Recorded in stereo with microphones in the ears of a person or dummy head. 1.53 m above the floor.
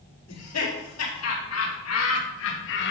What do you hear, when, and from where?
0.3 s laughter: 85° left, 5 m; by 2.9 s 60° left (ahead or behind), 1.9 m